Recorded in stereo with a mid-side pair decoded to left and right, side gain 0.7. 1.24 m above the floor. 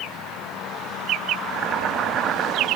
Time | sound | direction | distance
1.4 | boiling | 40° right | 2 m